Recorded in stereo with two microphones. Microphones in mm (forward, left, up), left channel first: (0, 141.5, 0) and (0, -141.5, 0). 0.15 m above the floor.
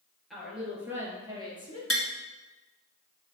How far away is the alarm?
No alarm in this recording.